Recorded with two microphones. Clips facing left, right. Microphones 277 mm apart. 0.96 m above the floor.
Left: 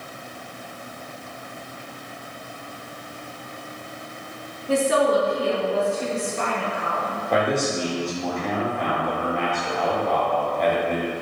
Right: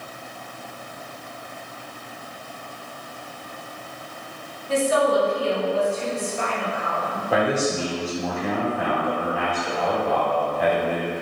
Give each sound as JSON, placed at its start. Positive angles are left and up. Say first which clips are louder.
{"t": 4.7, "sound": "a woman speaking", "louder": "left 1 dB", "side_deg": 65, "distance_m": 2.0}
{"t": 7.3, "sound": "a man speaking", "louder": "right 1 dB", "side_deg": -5, "distance_m": 2.0}